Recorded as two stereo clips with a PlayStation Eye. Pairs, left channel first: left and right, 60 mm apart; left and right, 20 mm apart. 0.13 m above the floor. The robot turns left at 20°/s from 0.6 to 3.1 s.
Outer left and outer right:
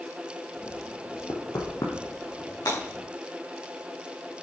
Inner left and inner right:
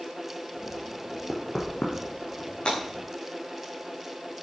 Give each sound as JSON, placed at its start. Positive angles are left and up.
{"t": 1.3, "sound": "knocking", "side_deg": 70, "distance_m": 2.5}
{"t": 2.6, "sound": "breaking glass", "side_deg": 65, "distance_m": 7.0}